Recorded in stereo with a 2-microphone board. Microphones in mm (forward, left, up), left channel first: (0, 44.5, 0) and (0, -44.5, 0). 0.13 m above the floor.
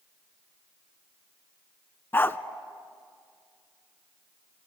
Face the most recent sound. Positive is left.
turn(degrees=25)  # may be behind; listen again after turning